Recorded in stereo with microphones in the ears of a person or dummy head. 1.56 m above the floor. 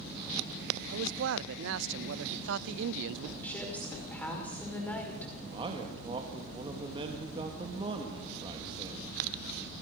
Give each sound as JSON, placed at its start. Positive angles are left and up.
{"t": 0.9, "sound": "a man speaking", "side_deg": -65, "distance_m": 0.5}
{"t": 3.4, "sound": "a woman speaking", "side_deg": 5, "distance_m": 5.5}
{"t": 5.5, "sound": "a man speaking", "side_deg": -30, "distance_m": 1.9}